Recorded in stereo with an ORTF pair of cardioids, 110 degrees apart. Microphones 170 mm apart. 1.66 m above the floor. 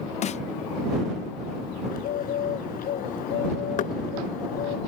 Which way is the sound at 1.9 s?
60° left.